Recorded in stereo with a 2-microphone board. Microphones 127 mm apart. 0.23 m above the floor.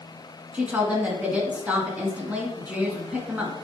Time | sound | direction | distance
0.5 | a woman speaking | 10° right (ahead or behind) | 1.9 m